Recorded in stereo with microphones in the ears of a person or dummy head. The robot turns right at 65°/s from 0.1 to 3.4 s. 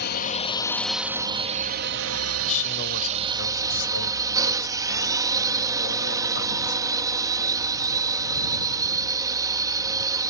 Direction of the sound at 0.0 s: 125° left.